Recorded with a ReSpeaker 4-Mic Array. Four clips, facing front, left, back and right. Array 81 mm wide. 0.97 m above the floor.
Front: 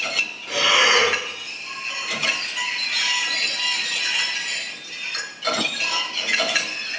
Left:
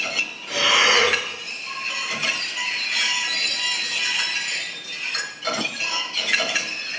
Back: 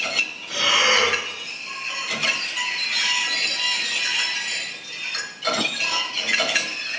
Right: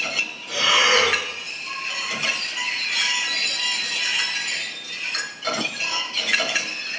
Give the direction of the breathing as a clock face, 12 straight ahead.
11 o'clock.